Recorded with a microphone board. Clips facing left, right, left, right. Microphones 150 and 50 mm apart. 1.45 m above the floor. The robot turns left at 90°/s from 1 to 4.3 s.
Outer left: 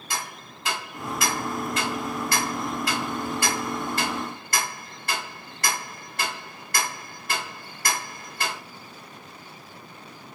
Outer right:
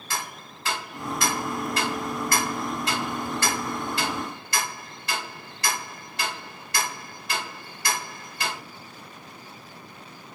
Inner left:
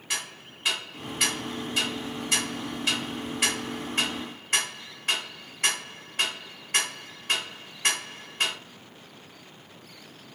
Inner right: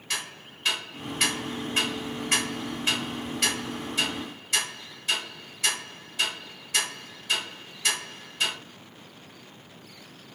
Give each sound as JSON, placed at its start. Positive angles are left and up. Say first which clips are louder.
{"t": 0.1, "sound": "ticking", "louder": "even, even", "side_deg": 15, "distance_m": 1.3}